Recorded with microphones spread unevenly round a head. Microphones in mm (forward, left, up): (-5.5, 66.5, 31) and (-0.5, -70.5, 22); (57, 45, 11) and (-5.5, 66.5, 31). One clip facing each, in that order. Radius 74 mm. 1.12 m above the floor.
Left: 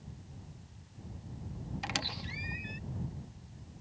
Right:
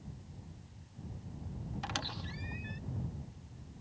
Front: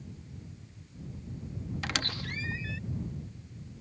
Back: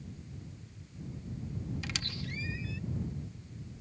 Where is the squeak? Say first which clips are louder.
Left 2 dB, front 5 dB; 15° left.